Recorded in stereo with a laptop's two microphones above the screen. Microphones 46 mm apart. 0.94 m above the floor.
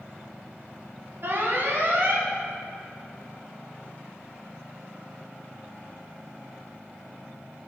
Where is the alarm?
55° right (ahead or behind), 1.5 m.